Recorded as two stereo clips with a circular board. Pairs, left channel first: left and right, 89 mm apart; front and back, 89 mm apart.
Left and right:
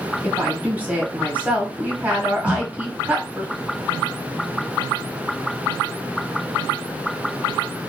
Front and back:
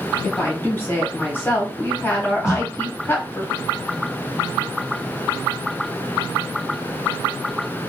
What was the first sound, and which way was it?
A woman speaking, 35° right.